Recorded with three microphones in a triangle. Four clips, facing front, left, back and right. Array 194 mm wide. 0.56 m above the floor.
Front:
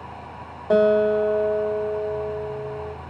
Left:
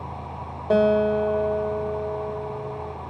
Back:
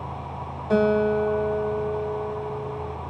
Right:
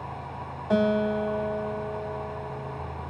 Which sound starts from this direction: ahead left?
A guitar, at 0.7 s.